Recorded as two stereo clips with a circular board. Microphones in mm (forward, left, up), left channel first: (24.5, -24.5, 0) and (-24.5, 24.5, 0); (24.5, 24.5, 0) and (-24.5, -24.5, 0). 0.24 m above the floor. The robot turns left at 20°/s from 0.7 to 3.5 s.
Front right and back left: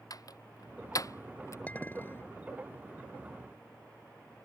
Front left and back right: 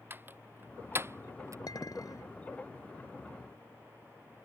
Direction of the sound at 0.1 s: 70° right.